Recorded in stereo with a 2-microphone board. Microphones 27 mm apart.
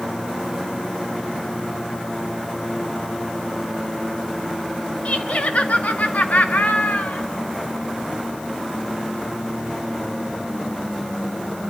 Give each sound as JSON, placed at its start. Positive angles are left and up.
{"t": 5.0, "sound": "laughter", "side_deg": 55, "distance_m": 1.5}